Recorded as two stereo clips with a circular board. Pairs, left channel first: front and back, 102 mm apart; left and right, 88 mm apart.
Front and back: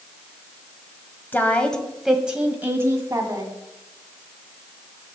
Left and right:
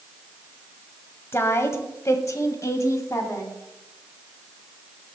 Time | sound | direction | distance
1.3 | a woman speaking | 55° left | 1.4 m